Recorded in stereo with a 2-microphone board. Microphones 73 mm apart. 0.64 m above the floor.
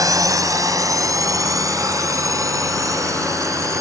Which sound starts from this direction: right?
A drone, at 0.0 s.